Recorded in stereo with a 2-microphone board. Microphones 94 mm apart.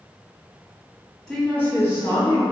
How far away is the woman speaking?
About 1.0 m.